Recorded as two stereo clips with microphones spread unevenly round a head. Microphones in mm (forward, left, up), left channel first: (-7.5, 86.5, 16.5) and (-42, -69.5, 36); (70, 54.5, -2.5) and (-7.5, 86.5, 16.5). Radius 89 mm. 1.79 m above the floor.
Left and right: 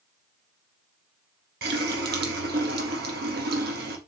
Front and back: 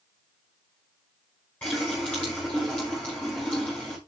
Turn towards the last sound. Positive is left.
turn(degrees=-110)